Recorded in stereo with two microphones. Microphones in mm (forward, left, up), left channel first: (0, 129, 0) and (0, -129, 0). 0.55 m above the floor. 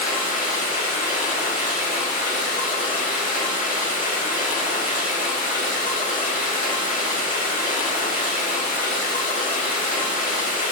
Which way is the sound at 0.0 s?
30° left (ahead or behind).